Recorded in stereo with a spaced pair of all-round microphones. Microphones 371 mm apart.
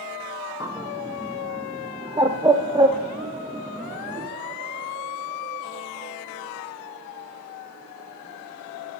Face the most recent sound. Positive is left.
turn(degrees=-10)  # may be behind; listen again after turning